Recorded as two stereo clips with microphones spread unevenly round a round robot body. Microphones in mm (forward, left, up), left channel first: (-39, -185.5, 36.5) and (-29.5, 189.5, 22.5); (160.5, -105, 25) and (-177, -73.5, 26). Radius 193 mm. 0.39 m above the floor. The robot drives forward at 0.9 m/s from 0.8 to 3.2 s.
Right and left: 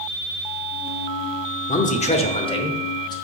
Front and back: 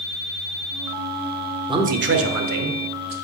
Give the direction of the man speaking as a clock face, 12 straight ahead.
4 o'clock.